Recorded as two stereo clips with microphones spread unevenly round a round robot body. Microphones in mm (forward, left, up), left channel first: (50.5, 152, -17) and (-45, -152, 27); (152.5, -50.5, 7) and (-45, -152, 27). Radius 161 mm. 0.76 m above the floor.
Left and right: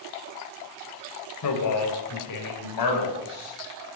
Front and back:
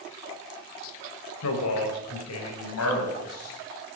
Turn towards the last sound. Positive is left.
turn(degrees=60)